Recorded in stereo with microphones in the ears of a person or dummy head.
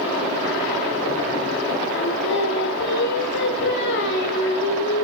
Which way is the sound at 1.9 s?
55° left (ahead or behind).